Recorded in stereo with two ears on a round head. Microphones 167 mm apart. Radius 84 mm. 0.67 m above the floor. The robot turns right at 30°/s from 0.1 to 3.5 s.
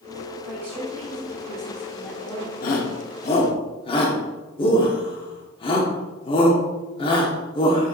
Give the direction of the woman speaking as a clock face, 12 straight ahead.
1 o'clock.